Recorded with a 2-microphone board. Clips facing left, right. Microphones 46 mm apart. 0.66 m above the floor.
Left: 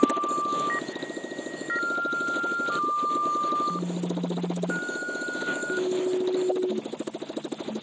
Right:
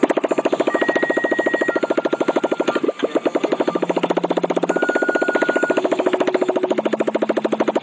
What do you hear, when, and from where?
0.0 s a motorcycle: 90° right